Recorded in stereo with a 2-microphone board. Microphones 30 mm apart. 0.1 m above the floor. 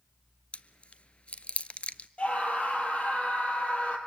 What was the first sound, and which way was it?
Chewing, 45° left (ahead or behind).